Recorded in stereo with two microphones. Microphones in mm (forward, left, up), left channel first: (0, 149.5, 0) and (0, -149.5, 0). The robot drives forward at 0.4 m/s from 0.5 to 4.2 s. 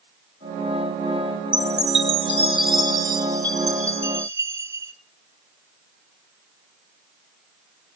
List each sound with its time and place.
1.5 s a chime: 25° right (ahead or behind), 0.6 m; by 4.9 s 10° right (ahead or behind), 1.5 m